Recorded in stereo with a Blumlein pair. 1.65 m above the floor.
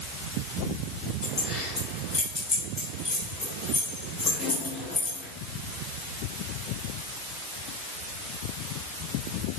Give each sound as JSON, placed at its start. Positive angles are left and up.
{"t": 1.2, "sound": "keys jangling", "azimuth_deg": 25, "distance_m": 4.0}